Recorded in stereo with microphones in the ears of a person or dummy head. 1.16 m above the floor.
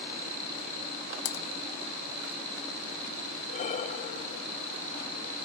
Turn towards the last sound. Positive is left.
turn(degrees=35)  # may be behind; listen again after turning